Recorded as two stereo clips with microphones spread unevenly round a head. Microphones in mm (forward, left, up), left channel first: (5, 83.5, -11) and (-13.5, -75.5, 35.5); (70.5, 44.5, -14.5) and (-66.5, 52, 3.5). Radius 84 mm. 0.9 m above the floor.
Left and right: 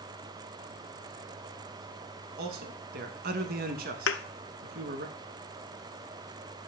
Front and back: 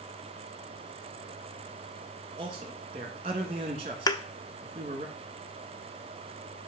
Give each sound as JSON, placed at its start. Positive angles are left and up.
{"t": 2.4, "sound": "a man speaking", "azimuth_deg": -130, "distance_m": 1.3}
{"t": 4.1, "sound": "a thud", "azimuth_deg": 60, "distance_m": 0.6}